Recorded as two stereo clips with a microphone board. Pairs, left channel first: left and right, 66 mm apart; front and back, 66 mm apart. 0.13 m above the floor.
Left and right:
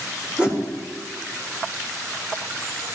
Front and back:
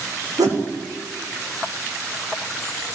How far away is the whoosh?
About 4.5 m.